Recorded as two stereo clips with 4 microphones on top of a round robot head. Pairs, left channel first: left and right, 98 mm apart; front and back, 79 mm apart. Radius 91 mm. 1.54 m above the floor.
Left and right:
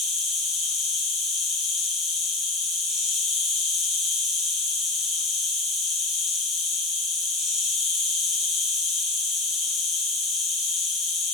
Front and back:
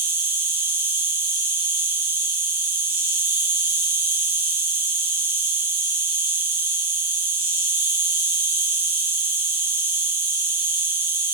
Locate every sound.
0.0 s an insect: 120° left, 3 m